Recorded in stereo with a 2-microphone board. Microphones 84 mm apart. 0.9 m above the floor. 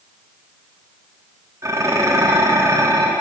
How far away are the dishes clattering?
About 1.0 m.